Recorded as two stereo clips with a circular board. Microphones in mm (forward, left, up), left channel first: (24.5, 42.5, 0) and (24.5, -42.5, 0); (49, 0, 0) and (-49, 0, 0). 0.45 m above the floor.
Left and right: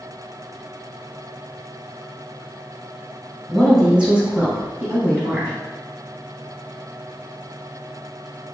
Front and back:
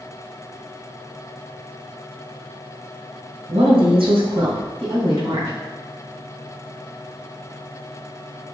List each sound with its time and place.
3.5 s a woman speaking: straight behind, 1.7 m; by 5.5 s 155° right, 3 m